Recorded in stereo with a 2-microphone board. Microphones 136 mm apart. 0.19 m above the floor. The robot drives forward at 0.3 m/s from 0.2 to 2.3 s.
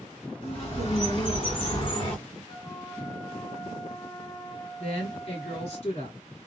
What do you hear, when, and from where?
0.4 s a bird: 45° left (ahead or behind), 2.5 m; by 2.2 s 40° left (ahead or behind), 2.5 m
2.5 s a flute: 45° left (ahead or behind), 2 m
4.8 s a woman speaking: 50° left (ahead or behind), 2.5 m